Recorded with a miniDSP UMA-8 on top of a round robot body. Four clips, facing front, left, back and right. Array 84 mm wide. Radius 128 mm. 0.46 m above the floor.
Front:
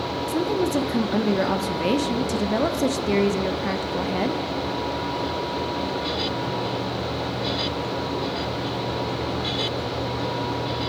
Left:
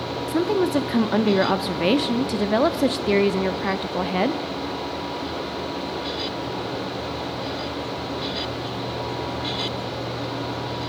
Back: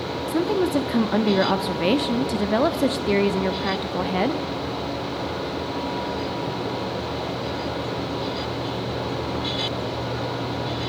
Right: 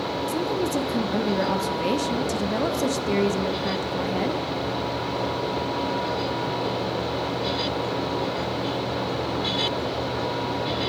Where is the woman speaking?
120° left, 0.8 m.